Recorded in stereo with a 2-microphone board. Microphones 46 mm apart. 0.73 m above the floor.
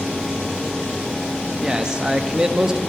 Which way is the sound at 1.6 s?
15° right (ahead or behind).